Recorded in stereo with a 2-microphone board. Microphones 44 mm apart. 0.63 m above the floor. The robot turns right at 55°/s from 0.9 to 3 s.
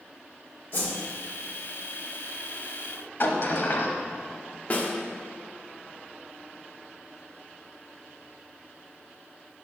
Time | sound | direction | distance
0.7 | a whoosh | 55° left (ahead or behind) | 1.9 m
3.2 | a sliding door | 50° left (ahead or behind) | 0.9 m
4.7 | a snare drum | 35° left (ahead or behind) | 1.0 m